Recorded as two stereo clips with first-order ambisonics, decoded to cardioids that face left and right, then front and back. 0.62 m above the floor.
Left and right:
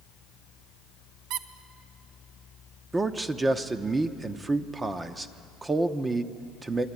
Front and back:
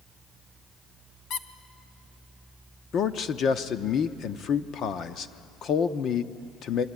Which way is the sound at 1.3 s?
50° right.